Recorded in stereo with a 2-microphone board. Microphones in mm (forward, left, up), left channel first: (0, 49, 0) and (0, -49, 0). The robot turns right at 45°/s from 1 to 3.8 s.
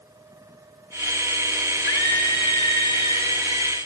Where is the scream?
125° right, 4 m; by 3.8 s 40° right, 4 m.